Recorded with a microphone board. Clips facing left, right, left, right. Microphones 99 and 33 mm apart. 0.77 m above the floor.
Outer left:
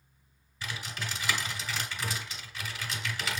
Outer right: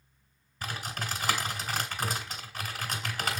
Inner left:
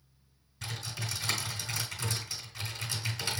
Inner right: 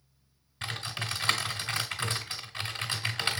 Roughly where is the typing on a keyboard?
Right.